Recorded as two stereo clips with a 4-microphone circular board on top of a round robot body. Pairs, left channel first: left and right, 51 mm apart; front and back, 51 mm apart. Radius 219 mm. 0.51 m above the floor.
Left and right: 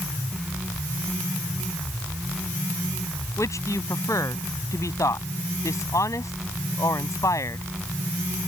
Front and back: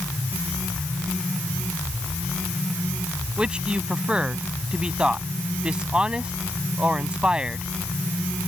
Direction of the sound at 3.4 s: 105° left.